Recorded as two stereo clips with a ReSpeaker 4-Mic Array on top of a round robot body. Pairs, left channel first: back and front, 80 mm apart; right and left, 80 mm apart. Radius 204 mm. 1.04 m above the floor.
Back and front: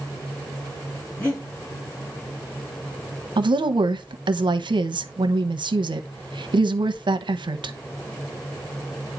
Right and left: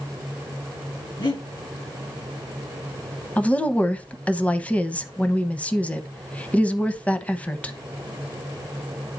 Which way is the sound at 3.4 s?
15° right.